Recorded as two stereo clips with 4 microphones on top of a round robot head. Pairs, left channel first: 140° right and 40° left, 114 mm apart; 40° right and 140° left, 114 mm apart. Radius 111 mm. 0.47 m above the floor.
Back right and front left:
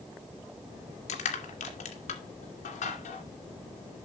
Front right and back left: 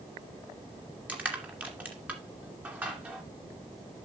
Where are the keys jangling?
No keys jangling in this recording.